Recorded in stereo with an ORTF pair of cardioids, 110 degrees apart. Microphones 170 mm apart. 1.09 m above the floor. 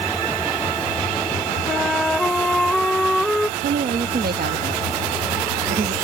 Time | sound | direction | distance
1.7 | a flute | 5° left | ?
3.6 | a woman speaking | 65° right | ?